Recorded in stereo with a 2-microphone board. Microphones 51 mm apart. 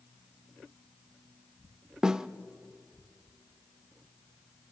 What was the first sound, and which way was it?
A snare drum, 15° right (ahead or behind).